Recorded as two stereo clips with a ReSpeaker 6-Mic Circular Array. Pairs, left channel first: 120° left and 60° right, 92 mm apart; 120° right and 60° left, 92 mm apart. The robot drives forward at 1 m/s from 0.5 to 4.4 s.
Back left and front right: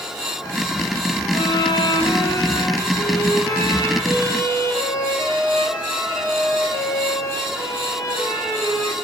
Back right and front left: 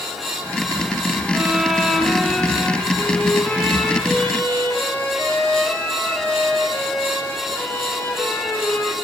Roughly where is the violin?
Behind left.